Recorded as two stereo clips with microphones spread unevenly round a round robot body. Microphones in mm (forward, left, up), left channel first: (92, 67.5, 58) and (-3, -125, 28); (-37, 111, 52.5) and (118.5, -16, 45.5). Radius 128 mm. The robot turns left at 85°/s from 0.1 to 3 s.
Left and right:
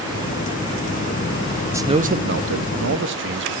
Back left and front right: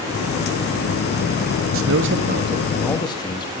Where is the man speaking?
40° right, 1.4 m; by 3.5 s 145° right, 1.4 m.